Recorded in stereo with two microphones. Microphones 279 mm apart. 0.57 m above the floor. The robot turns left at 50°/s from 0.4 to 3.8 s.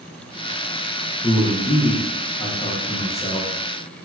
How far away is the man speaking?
About 0.6 m.